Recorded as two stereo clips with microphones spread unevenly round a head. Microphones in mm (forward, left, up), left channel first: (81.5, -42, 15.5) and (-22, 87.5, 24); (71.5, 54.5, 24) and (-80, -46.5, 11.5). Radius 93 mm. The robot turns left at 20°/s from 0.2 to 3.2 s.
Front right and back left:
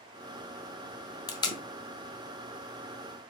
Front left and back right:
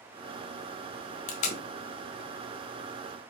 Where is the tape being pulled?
10° left, 0.8 m; by 1.6 s 5° left, 0.8 m.